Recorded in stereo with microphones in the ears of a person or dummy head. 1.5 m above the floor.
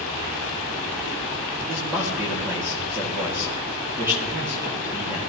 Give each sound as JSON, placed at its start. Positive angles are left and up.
{"t": 1.6, "sound": "a man speaking", "side_deg": -15, "distance_m": 2.5}